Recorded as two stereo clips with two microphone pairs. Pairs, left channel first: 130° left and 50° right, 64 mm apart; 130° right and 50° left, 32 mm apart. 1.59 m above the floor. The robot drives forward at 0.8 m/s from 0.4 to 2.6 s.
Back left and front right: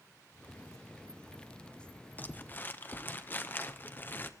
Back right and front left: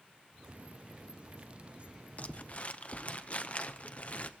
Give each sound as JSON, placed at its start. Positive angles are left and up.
{"t": 2.2, "sound": "crumpling", "azimuth_deg": -170, "distance_m": 0.7}